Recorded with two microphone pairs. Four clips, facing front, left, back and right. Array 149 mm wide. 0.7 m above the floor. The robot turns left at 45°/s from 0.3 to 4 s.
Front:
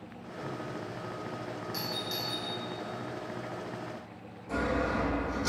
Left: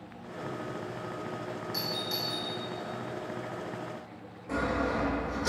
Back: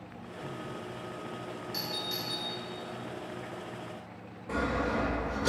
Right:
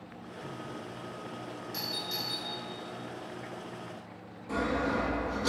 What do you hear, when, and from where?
1.7 s a doorbell: 105° left, 0.9 m; by 2.5 s 75° left, 0.9 m
4.5 s sawing: 175° left, 2.0 m